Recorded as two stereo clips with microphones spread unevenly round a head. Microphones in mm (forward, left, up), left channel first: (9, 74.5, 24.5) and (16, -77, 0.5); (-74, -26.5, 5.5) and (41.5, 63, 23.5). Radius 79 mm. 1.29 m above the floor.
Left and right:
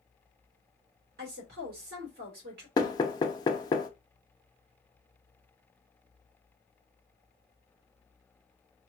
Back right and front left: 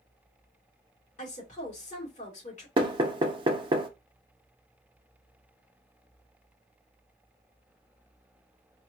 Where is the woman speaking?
100° right, 2 m.